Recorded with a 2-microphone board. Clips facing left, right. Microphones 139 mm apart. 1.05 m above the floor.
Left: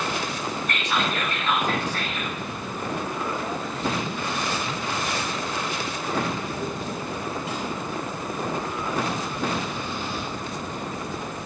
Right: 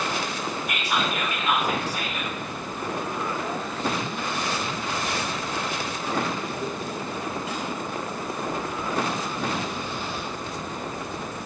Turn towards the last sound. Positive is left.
turn(degrees=-10)  # may be behind; listen again after turning